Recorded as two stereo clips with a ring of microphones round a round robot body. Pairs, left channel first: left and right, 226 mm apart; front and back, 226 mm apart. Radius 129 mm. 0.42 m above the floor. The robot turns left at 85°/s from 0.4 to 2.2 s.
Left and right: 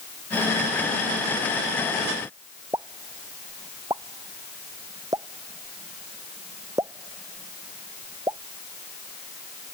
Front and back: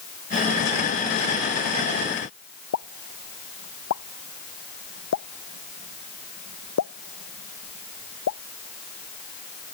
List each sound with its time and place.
2.7 s a pop: 15° right